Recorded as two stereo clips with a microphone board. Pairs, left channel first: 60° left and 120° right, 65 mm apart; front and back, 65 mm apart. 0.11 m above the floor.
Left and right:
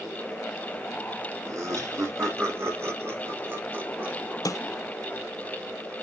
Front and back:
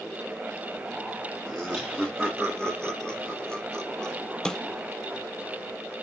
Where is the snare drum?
75° left, 0.5 m.